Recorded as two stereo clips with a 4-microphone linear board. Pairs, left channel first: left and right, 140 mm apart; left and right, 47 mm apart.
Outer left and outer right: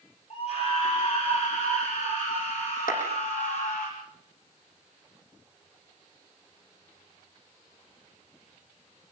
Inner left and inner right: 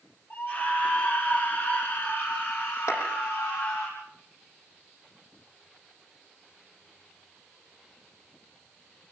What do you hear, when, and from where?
0.3 s a scream: 45° left (ahead or behind), 5.5 m; by 3.9 s 75° left (ahead or behind), 6.5 m
2.9 s a clap: 75° left (ahead or behind), 8.5 m